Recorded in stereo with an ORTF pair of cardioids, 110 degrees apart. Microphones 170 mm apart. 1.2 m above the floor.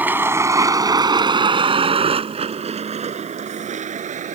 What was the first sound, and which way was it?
A vehicle, 10° right.